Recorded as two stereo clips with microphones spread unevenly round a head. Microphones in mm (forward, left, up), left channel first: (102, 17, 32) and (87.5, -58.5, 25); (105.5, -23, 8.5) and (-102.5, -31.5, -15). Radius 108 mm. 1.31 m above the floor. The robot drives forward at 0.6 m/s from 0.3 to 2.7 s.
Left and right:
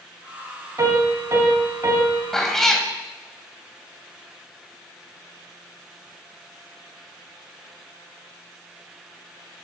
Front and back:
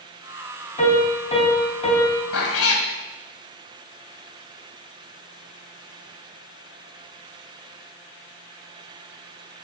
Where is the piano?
55° right, 10 m; by 2.2 s 60° right, 9.5 m.